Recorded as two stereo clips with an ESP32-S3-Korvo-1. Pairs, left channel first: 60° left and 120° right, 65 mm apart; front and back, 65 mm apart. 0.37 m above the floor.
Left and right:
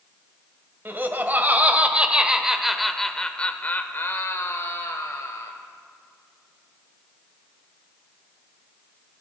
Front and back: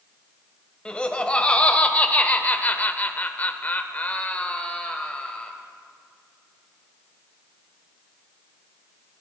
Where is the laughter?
70° right, 1.6 m; by 5.5 s 70° left, 1.5 m.